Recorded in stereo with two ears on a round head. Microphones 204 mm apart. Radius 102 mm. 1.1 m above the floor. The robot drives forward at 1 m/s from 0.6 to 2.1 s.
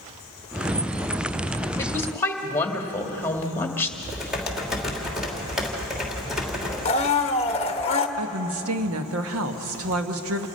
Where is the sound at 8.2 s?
65° right (ahead or behind), 1.3 m.